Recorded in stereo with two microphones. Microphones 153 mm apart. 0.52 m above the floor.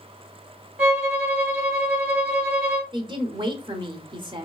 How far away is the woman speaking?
About 1.0 m.